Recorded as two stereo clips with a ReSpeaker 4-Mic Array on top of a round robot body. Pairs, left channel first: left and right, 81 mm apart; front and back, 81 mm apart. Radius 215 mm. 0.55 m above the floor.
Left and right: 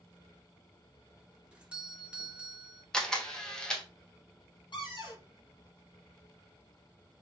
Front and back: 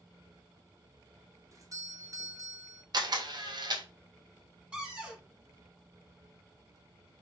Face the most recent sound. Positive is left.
turn(degrees=100)